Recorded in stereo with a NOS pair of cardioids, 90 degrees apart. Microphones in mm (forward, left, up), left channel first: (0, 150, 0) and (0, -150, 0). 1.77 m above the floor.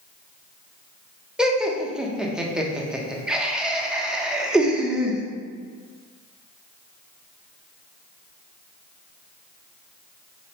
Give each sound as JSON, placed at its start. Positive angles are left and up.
{"t": 1.4, "sound": "laughter", "azimuth_deg": -5, "distance_m": 0.7}